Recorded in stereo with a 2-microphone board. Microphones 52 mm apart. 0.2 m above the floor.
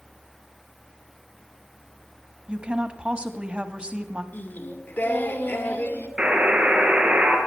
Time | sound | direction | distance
2.5 | a woman speaking | 20° right (ahead or behind) | 1.2 m
4.3 | singing | 45° left (ahead or behind) | 1.4 m
6.2 | a buzzer | 30° right (ahead or behind) | 3.5 m